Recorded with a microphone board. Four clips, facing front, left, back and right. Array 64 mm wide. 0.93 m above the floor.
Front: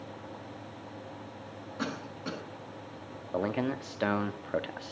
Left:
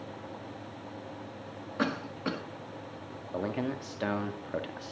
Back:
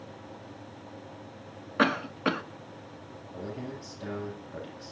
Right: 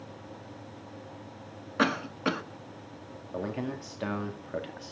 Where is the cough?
160° right, 1.6 m.